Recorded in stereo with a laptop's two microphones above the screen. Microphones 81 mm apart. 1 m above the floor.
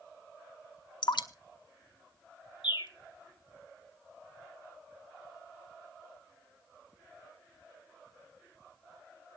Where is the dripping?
70° left (ahead or behind), 0.9 m.